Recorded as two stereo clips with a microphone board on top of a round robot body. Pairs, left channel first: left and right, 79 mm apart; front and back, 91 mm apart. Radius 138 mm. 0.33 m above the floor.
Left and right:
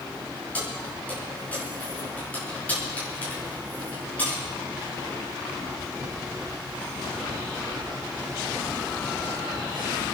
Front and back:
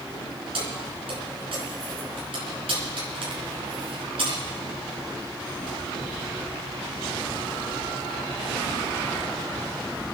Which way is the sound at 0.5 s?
160° left.